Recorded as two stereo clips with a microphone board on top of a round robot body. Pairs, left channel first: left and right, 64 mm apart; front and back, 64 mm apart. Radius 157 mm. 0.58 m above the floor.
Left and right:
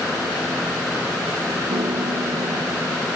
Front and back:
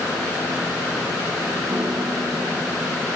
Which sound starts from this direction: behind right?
A piano, at 1.7 s.